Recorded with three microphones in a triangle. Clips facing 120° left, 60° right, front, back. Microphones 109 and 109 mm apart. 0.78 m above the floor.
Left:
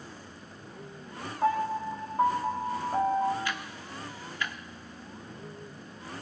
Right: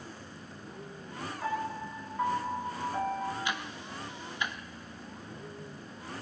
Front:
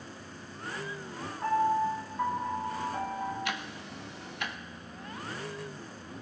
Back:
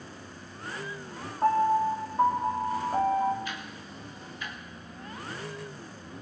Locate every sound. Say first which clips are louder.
1.4 s a piano: left 8 dB, back 3 dB; 160° left, 2.0 m
3.5 s ticking: even, front 2 dB; 10° left, 0.7 m